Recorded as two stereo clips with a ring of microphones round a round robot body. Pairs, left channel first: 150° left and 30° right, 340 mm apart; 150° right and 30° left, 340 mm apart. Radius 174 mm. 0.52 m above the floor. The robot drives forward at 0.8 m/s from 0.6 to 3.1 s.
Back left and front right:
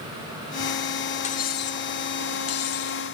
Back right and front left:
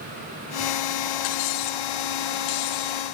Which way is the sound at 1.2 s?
140° right.